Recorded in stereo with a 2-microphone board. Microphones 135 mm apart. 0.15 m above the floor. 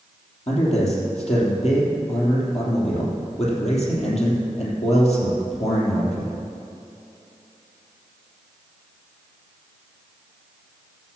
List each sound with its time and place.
0.5 s a man speaking: 55° left (ahead or behind), 3.5 m